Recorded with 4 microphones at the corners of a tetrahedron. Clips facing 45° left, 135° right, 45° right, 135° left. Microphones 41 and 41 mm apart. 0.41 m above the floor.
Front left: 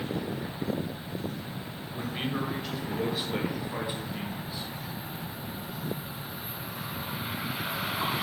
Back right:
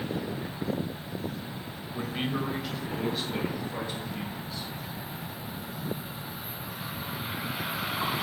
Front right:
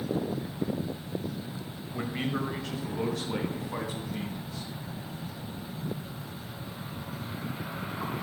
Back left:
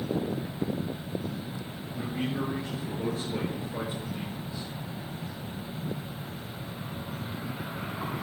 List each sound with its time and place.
1.9 s a man speaking: 60° right, 1.8 m; by 4.7 s 30° right, 4 m